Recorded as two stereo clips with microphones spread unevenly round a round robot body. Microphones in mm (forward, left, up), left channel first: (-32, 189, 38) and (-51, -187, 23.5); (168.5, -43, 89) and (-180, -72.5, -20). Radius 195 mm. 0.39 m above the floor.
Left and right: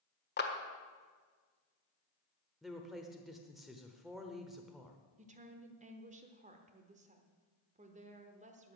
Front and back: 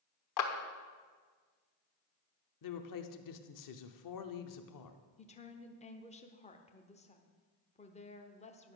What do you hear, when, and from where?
0.4 s a clap: 35° left, 1.4 m
2.6 s a woman speaking: 5° right, 0.9 m
5.2 s a woman speaking: 85° right, 1.1 m